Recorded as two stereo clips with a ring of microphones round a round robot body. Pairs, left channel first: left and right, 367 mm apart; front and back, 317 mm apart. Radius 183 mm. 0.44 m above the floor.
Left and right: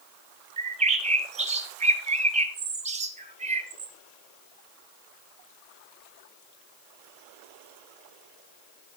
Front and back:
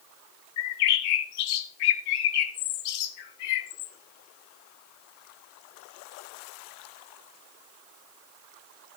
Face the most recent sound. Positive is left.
turn(degrees=-20)